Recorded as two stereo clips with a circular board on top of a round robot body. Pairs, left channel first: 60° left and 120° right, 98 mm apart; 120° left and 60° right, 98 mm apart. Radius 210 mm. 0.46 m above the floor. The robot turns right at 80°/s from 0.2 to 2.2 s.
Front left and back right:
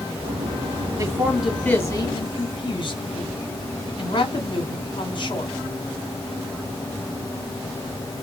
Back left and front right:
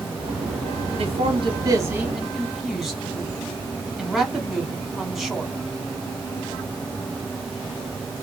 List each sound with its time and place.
1.0 s a man speaking: 70° right, 1.4 m; by 5.5 s 25° left, 1.4 m